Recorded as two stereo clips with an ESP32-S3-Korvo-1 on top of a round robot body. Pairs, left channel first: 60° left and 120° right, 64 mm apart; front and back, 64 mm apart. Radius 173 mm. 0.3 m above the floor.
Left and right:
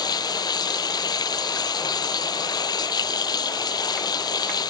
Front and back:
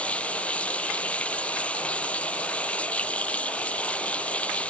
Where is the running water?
70° left.